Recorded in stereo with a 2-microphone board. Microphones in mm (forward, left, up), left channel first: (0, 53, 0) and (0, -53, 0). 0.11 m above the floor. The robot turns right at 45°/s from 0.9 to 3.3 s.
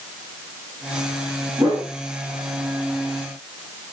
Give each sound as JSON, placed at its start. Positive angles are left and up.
{"t": 1.6, "sound": "a whoosh", "side_deg": -25, "distance_m": 1.6}